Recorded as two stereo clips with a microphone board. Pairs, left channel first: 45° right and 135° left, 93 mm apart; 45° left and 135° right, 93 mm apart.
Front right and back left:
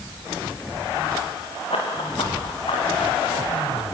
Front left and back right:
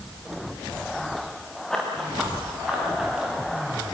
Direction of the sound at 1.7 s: 40° right.